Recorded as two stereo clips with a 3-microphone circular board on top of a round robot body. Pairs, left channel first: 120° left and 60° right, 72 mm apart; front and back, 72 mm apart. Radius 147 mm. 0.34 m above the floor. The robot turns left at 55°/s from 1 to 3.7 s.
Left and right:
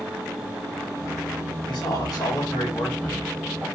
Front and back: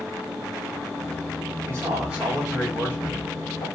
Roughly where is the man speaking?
Behind left.